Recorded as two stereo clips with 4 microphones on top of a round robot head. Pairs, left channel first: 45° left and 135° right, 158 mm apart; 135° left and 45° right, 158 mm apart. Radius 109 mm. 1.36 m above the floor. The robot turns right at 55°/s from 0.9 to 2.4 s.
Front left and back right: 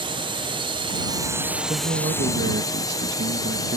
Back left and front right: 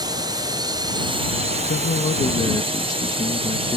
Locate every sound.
0.0 s a drone: 95° right; by 3.8 s 15° right
1.7 s a man speaking: 160° left; by 3.8 s 155° right